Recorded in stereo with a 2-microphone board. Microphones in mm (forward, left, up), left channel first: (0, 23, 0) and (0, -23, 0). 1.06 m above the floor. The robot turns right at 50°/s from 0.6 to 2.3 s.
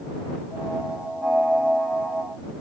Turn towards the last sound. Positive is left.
No sound to turn to.